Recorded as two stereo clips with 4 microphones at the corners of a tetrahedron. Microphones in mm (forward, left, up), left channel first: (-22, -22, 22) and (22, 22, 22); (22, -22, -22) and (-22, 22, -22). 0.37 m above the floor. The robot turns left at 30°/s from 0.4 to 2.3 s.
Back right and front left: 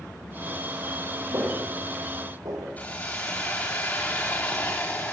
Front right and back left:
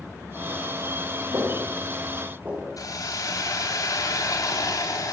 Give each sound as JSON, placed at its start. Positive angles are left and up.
{"t": 1.3, "sound": "footsteps", "azimuth_deg": 95, "distance_m": 9.5}
{"t": 2.8, "sound": "a hiss", "azimuth_deg": -70, "distance_m": 7.5}